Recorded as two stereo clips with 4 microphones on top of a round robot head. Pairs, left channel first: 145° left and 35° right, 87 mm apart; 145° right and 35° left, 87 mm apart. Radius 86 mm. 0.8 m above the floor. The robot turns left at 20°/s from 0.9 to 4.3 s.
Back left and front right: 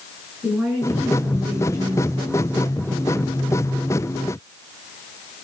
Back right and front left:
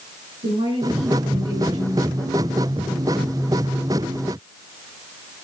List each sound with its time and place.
0.4 s a woman speaking: 40° left, 10 m; by 3.4 s 10° right, 10 m